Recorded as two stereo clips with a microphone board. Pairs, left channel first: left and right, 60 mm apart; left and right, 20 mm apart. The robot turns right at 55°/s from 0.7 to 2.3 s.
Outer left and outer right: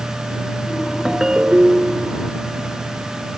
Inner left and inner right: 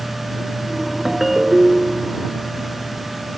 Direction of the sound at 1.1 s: 170° right.